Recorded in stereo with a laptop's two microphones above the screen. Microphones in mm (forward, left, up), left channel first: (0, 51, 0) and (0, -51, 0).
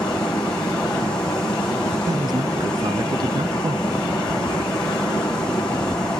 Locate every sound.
0.0 s running water: 5° left (ahead or behind), 8.5 m
2.1 s a man speaking: 45° right (ahead or behind), 0.6 m